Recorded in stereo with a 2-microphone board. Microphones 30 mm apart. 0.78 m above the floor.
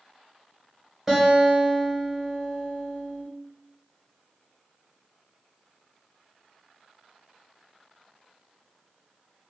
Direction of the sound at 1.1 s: 10° right (ahead or behind).